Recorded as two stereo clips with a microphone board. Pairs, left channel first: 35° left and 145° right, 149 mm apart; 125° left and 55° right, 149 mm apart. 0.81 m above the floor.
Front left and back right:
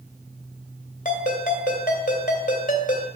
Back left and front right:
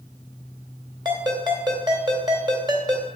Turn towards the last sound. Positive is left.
turn(degrees=5)